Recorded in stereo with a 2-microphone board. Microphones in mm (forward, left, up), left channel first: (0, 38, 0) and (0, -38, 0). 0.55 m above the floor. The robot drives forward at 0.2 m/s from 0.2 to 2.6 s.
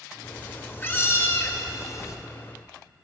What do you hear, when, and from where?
0.2 s a cat meowing: 25° left (ahead or behind), 0.8 m; by 2.2 s 45° left (ahead or behind), 0.5 m